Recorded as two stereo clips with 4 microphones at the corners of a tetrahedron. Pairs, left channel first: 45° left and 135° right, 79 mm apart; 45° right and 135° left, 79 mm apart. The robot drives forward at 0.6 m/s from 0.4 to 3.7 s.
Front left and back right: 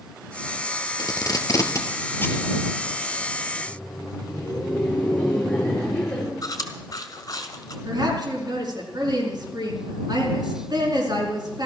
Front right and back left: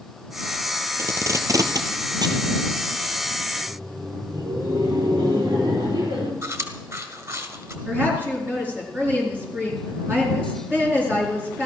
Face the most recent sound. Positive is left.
turn(degrees=-160)